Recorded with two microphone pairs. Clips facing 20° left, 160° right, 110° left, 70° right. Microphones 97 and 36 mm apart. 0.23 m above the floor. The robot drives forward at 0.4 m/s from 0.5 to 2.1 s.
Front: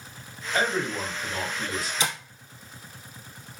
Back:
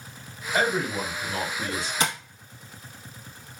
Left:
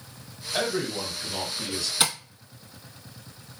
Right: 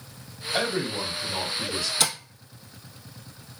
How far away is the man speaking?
About 1.3 m.